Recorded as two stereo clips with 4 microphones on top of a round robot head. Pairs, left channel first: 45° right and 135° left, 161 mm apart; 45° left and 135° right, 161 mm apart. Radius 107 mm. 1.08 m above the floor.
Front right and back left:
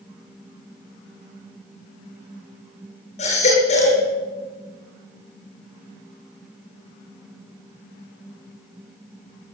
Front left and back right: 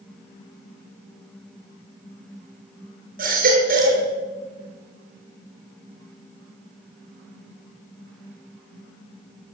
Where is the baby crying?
100° right, 9.5 m.